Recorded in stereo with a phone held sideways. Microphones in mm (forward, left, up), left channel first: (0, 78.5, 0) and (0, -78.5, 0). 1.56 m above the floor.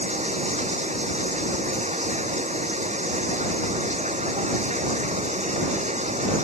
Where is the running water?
50° right (ahead or behind).